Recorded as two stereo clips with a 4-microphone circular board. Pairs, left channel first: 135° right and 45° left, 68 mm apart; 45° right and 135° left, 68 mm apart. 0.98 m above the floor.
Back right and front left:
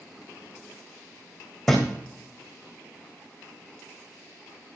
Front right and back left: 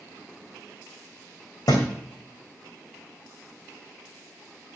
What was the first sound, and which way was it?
A thud, 45° right.